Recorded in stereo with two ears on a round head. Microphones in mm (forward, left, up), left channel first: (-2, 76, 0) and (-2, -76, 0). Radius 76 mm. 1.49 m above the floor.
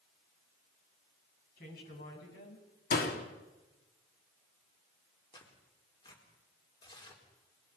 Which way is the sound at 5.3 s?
25° left (ahead or behind).